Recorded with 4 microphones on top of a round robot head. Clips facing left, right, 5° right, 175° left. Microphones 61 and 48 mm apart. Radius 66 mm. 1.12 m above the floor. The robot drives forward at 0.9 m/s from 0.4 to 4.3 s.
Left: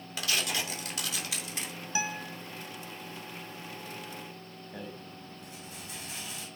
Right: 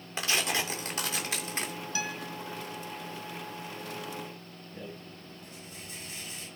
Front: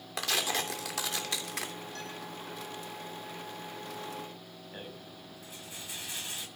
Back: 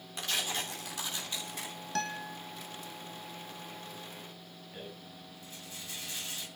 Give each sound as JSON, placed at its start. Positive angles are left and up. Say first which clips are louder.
{"t": 0.2, "sound": "tearing paper", "louder": "right 3 dB, front 3 dB", "azimuth_deg": -25, "distance_m": 3.0}
{"t": 1.9, "sound": "a guitar", "louder": "left 3 dB, back 6 dB", "azimuth_deg": 160, "distance_m": 1.5}
{"t": 4.7, "sound": "a rattle", "louder": "left 1 dB, front 1 dB", "azimuth_deg": 65, "distance_m": 6.5}